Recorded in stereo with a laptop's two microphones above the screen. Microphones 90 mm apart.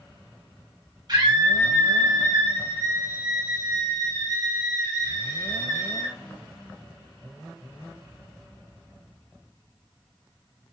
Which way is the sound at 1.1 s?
50° right (ahead or behind).